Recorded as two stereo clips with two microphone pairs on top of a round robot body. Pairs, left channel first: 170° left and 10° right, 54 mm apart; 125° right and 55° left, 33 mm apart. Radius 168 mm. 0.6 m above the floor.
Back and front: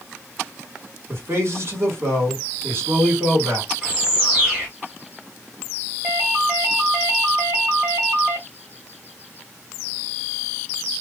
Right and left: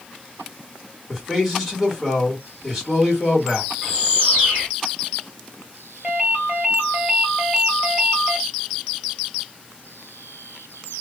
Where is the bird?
55° left, 0.5 m.